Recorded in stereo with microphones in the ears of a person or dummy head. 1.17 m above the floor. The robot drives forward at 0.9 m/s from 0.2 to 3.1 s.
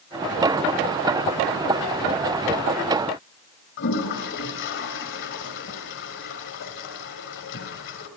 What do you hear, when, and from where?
3.8 s a toilet flushing: 60° left (ahead or behind), 2 m